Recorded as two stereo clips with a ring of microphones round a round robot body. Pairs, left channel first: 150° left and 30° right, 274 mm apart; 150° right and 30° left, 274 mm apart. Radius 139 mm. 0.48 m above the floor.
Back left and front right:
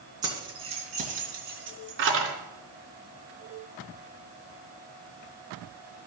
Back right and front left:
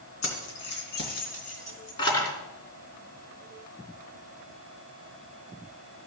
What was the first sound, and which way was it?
Keys jangling, 105° right.